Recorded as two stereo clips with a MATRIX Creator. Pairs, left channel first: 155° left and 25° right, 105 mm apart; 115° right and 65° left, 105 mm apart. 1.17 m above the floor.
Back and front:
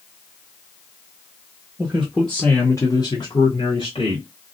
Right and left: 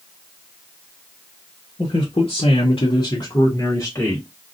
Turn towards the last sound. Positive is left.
turn(degrees=180)